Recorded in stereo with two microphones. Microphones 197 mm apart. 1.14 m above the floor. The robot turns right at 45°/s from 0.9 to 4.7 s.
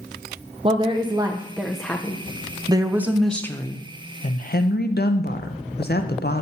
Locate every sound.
0.6 s a woman speaking: 40° right, 0.5 m; by 2.2 s 20° left, 0.5 m
2.7 s a woman speaking: 25° right, 0.5 m; by 6.4 s 65° left, 0.5 m